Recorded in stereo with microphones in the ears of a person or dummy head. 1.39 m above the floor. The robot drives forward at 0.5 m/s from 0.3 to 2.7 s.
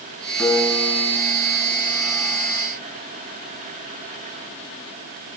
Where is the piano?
Centre (ahead or behind), 6.5 m.